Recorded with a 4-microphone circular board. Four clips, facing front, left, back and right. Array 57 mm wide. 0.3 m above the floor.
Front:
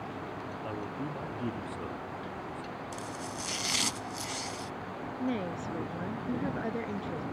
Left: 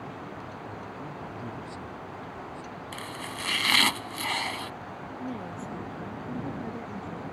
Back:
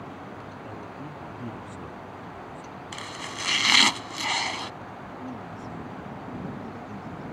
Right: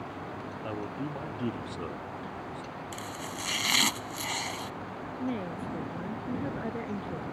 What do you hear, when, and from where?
0.6 s a man speaking: 65° right; by 2.6 s 75° right
2.9 s chopping: 155° left
5.2 s a woman speaking: 30° right